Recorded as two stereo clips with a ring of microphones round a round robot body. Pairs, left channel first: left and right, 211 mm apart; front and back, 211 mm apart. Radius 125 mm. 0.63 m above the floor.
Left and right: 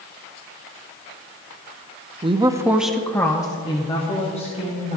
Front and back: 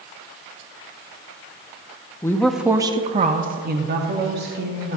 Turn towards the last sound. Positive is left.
turn(degrees=150)